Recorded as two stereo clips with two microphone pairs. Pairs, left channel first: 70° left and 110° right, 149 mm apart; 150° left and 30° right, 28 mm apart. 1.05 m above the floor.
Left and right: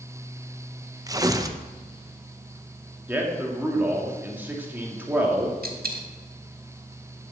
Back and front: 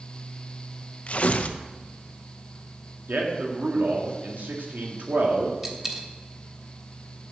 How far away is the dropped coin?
About 1.3 m.